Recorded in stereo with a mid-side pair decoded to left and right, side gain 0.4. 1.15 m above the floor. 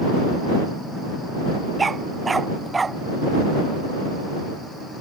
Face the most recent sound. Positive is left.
turn(degrees=-30)